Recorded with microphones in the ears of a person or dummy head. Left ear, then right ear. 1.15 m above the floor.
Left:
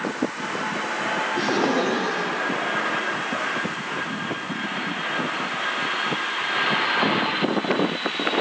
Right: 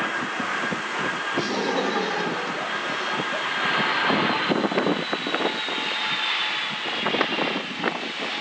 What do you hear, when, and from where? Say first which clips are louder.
1.4 s laughter: left 3 dB; 5° right (ahead or behind), 3 m; by 3.5 s 55° right (ahead or behind), 1.2 m